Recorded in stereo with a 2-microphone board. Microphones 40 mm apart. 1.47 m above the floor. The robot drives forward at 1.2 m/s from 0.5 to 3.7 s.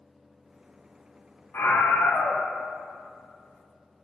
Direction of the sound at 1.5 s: 80° left.